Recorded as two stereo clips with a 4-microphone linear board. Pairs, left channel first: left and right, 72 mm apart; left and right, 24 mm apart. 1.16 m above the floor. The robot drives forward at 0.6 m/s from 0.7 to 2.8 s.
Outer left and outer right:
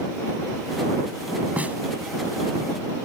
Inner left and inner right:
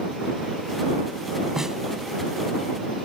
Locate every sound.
1.6 s a snare drum: 20° right (ahead or behind); by 1.8 s 25° right (ahead or behind)